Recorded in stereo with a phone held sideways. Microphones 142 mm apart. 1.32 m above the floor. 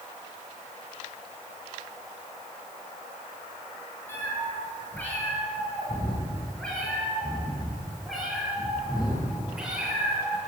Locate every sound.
4.1 s a cat meowing: 15° left (ahead or behind), 8 m; by 10.4 s 5° right (ahead or behind), 10 m